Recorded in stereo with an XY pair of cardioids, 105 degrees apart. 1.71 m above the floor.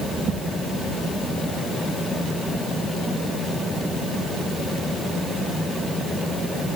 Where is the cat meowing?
No cat meowing in this recording.